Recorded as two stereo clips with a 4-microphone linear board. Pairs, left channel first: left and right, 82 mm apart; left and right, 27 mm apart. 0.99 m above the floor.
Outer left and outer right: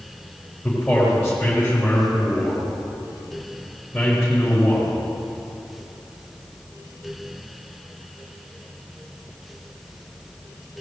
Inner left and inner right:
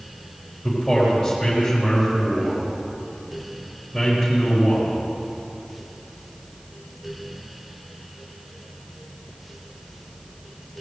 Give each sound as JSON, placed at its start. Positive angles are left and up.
{"t": 0.6, "sound": "a man speaking", "side_deg": 0, "distance_m": 4.0}